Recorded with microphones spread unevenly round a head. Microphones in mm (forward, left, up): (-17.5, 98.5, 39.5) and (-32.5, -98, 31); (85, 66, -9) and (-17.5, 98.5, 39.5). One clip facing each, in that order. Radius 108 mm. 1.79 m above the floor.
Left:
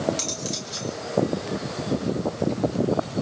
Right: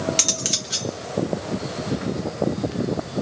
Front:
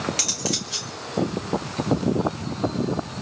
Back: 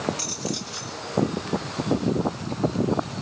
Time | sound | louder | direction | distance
0.2 | cutlery clinking | right 1 dB, front 1 dB | 70° right | 1.9 m